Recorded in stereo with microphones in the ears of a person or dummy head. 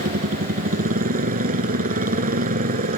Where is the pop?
No pop in this recording.